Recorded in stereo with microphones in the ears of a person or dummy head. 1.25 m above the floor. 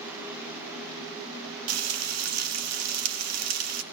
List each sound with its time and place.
1.7 s frying: 80° right, 2.5 m